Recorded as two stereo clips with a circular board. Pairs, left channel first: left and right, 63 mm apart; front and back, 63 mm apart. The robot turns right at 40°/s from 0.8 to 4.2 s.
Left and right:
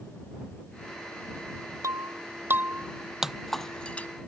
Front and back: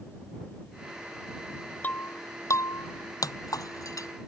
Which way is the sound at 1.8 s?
65° right.